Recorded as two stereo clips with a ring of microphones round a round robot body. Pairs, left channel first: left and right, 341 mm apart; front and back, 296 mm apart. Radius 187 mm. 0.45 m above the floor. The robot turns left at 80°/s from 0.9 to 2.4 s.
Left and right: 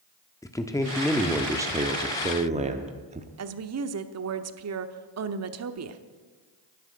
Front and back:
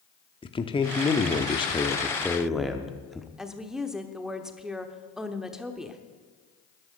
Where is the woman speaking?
90° right, 1.0 m.